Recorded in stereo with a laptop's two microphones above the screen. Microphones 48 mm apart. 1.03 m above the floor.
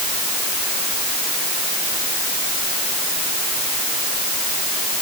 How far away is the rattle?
I don't hear a rattle.